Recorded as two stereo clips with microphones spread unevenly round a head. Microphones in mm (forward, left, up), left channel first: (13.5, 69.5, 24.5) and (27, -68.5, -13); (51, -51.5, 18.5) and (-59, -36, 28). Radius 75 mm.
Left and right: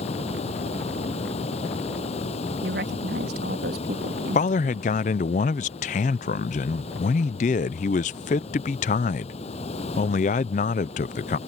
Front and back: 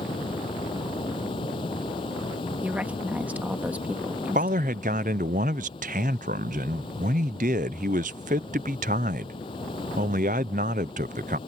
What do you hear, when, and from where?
0.0 s running water: 50° left
2.6 s a woman speaking: 110° right
4.3 s a man speaking: 140° left